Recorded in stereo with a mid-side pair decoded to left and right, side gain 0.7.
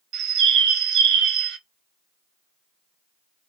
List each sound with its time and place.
0.1 s a bird: 55° right, 0.7 m